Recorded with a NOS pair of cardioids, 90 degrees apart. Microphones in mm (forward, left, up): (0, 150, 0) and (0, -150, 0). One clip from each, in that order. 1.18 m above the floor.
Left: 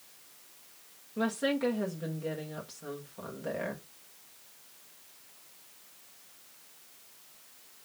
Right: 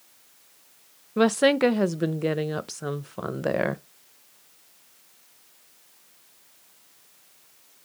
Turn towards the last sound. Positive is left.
turn(degrees=-70)